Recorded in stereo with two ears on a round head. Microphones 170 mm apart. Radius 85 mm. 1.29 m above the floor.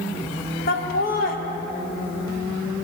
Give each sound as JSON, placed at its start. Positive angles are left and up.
{"t": 0.7, "sound": "laughter", "side_deg": 50, "distance_m": 1.6}